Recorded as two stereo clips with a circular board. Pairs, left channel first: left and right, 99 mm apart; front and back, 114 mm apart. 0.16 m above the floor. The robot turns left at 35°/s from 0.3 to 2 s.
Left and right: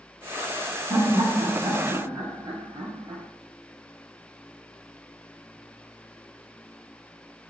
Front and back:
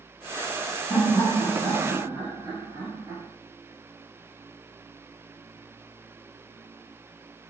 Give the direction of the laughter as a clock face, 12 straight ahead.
3 o'clock.